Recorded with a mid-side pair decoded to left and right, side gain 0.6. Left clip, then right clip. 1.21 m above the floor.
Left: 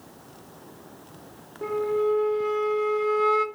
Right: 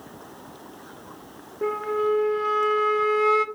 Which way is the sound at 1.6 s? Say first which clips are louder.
Even; 20° right.